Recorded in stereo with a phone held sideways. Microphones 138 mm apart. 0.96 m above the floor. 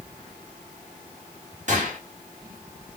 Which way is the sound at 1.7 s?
55° right (ahead or behind).